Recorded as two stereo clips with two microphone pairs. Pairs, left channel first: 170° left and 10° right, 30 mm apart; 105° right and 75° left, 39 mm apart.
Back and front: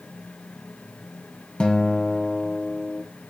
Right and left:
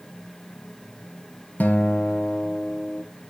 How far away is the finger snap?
No finger snap in this recording.